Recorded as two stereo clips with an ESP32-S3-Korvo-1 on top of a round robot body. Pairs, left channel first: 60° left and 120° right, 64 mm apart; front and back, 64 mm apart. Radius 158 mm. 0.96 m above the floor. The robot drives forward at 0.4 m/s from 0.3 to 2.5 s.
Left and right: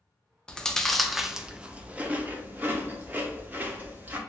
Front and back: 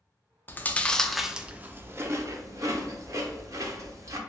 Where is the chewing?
5° right, 0.6 m; by 4.2 s 175° right, 0.8 m.